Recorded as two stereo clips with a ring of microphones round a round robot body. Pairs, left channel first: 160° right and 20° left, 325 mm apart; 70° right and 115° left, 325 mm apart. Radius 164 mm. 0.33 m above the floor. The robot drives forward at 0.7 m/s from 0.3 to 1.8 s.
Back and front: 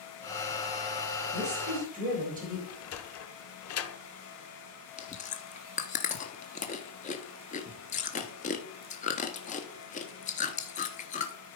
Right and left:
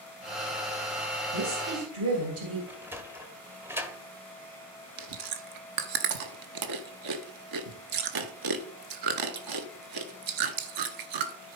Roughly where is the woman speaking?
Left.